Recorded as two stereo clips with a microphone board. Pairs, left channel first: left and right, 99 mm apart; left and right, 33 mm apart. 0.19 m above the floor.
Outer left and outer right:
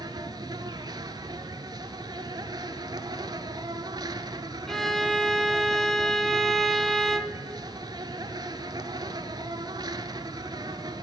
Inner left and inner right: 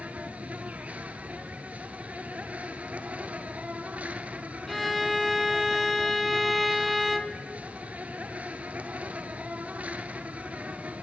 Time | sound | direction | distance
0.0 | an insect | 45° right (ahead or behind) | 0.8 m
4.7 | a violin | 5° left (ahead or behind) | 0.6 m